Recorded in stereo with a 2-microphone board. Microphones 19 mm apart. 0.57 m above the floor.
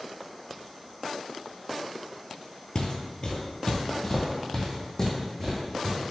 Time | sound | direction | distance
2.8 | footsteps | 40° left (ahead or behind) | 0.7 m